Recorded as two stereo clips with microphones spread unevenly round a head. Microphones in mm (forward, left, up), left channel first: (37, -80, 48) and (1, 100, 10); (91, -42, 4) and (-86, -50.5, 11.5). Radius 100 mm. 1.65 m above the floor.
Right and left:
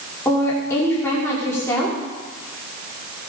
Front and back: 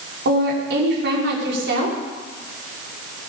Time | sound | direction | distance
0.2 | a woman speaking | 155° right | 5 m